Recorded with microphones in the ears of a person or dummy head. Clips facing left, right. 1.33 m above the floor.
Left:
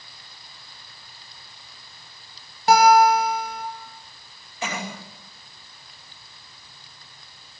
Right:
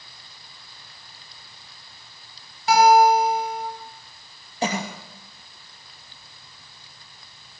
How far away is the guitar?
About 6.5 m.